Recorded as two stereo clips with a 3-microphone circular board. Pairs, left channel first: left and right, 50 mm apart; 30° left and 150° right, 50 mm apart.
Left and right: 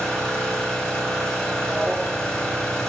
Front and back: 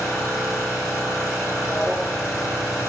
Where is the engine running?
15° left, 4.5 m.